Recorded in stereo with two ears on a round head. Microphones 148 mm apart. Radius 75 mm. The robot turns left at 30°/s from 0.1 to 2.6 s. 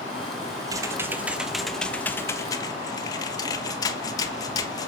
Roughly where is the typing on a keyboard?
Behind right.